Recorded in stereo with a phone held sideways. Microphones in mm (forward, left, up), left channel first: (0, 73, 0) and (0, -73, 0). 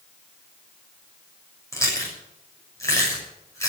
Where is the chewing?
20° left (ahead or behind), 7 m.